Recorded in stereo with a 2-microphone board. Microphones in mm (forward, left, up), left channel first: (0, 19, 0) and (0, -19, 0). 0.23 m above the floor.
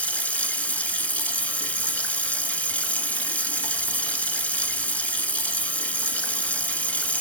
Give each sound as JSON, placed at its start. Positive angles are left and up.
{"t": 0.0, "sound": "running water", "side_deg": 40, "distance_m": 1.2}